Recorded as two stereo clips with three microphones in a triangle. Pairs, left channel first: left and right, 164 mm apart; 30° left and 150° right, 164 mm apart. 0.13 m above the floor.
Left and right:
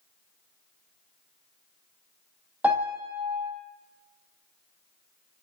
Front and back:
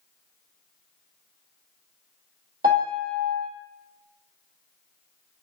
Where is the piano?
170° right, 4 m.